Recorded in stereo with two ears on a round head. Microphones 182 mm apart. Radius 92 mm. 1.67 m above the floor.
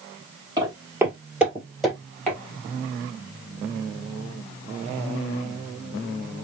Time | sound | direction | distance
0.6 | footsteps | 20° right (ahead or behind) | 1.7 m